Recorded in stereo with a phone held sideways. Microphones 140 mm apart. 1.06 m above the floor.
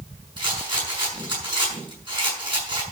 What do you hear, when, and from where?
0.4 s a rattle: 35° right (ahead or behind), 6 m